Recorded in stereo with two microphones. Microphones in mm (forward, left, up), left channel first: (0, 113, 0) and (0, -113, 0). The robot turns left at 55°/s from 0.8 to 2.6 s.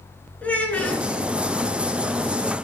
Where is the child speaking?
5° left (ahead or behind), 1.2 m; by 1.0 s centre (ahead or behind), 1.2 m.